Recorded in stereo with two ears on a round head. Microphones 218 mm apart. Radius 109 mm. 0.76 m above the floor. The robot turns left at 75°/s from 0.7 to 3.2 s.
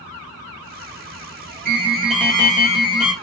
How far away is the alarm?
About 1.0 m.